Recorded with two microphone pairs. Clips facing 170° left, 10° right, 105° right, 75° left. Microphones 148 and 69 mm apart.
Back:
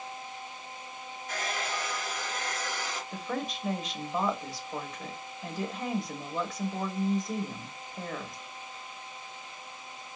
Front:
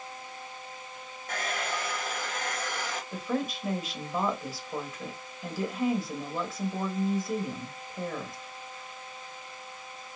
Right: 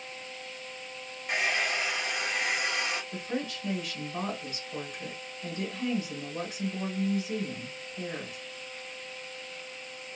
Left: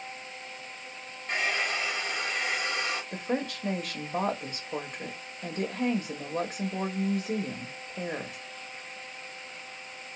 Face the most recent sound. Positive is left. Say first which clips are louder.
# front 4 dB, left 3 dB
turn(degrees=75)